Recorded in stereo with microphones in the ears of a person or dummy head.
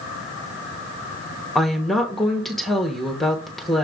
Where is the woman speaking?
5° left (ahead or behind), 1.1 m.